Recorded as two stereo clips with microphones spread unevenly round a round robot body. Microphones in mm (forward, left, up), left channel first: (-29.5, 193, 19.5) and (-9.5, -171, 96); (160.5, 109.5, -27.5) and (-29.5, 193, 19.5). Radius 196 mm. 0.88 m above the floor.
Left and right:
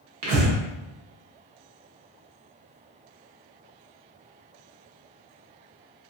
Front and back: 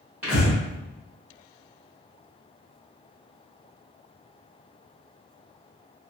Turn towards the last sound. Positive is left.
turn(degrees=-105)